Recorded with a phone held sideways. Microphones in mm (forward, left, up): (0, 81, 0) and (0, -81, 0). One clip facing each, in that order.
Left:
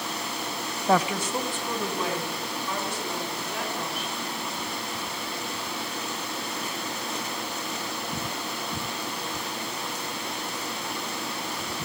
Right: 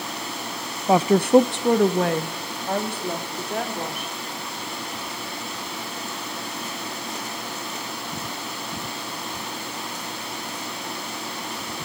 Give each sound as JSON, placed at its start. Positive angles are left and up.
{"t": 0.9, "sound": "a woman speaking", "side_deg": -10, "distance_m": 0.5}